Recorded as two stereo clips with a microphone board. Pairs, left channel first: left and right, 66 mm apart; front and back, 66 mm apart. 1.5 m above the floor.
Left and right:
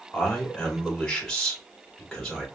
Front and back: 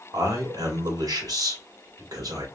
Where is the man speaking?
170° left, 1.7 m.